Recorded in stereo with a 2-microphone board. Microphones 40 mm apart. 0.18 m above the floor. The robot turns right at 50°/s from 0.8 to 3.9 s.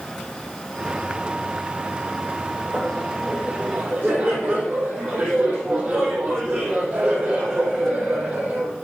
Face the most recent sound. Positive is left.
turn(degrees=-155)